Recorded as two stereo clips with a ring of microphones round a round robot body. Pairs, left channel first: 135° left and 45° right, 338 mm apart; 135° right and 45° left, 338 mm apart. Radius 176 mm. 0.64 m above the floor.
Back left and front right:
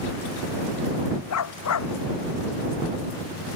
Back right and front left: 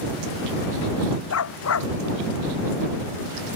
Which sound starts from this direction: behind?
A dog barking, at 1.3 s.